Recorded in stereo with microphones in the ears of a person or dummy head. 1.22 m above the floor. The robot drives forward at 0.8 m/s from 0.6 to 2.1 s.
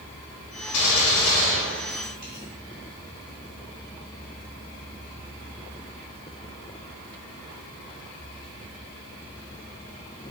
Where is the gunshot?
85° left, 1.0 m; by 2.5 s 40° left (ahead or behind), 1.5 m.